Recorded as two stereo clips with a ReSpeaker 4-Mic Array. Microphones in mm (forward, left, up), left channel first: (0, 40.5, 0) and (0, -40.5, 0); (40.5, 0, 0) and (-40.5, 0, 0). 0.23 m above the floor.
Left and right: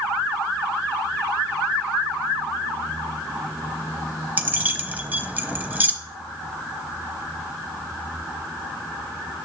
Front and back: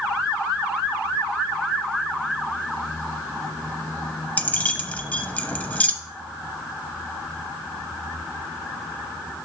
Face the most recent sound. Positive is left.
turn(degrees=-50)